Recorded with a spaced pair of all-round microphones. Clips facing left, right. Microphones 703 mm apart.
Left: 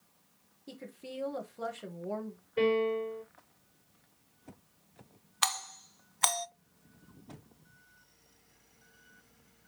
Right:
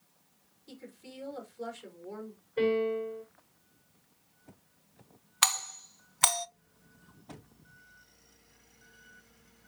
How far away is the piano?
About 4.5 m.